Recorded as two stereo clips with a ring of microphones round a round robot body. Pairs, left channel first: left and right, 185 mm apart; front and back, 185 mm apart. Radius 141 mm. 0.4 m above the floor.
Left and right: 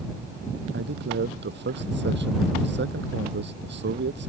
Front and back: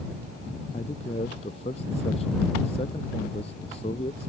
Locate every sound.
0.7 s a man speaking: 70° right